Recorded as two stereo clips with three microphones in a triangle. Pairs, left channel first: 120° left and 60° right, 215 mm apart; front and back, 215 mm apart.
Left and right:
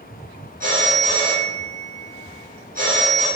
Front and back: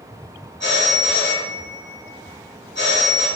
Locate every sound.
0.6 s a phone ringing: 20° right, 1.7 m